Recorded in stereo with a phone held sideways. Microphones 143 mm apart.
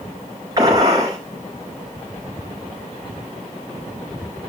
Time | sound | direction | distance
0.6 | a gunshot | 25° right (ahead or behind) | 5 m